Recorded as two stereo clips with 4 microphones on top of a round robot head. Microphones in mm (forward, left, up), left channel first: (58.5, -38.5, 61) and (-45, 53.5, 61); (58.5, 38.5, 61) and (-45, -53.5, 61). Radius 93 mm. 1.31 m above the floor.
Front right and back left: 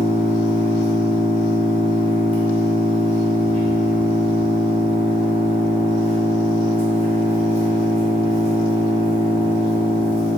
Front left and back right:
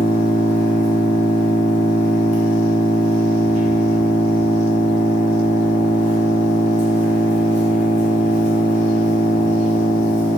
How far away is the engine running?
About 0.7 m.